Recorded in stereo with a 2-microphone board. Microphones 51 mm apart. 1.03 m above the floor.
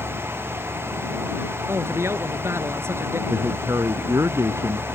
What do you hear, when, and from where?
1.7 s a man speaking: 55° right (ahead or behind)
3.3 s a man speaking: 80° right